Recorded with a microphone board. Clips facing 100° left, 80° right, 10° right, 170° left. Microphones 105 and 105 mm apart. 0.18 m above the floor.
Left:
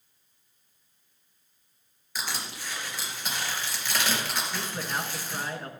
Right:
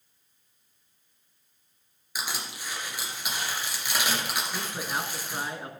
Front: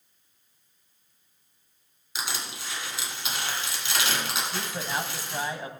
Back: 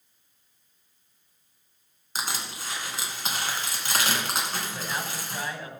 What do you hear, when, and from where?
2.1 s crushing: 155° right, 2.5 m
4.5 s a man speaking: 20° right, 1.1 m